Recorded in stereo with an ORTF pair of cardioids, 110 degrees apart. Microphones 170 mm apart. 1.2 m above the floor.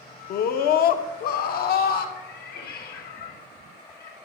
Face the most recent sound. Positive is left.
turn(degrees=70)